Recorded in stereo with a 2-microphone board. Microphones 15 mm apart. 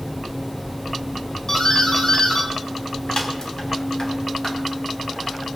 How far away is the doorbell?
About 2.5 m.